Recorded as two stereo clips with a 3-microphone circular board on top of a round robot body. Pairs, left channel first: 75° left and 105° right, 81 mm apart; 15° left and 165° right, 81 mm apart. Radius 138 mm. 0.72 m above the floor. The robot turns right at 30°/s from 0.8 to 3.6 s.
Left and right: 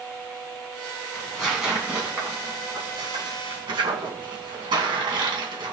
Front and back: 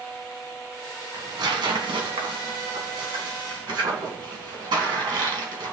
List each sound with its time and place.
1.1 s tearing paper: 155° left, 2 m; by 5.7 s 130° right, 2 m